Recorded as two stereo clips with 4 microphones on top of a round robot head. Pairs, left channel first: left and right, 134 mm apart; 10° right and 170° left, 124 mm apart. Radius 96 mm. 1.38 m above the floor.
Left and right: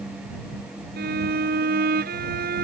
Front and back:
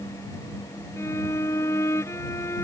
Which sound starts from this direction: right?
A violin, at 1.0 s.